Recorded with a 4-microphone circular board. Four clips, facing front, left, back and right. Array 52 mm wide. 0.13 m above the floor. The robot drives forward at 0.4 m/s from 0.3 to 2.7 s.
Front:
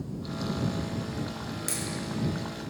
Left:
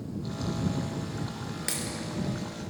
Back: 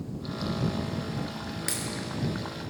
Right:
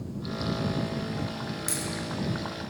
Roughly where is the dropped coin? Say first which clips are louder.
Right 1 dB, back 2 dB; behind left.